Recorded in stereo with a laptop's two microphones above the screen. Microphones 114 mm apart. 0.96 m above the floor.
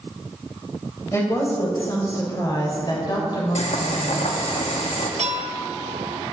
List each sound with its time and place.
1.1 s a woman speaking: 25° left (ahead or behind), 4 m; by 4.3 s 50° left (ahead or behind), 3.5 m
3.5 s boiling: 75° left (ahead or behind), 1.3 m
5.2 s a clink: 80° right, 1.0 m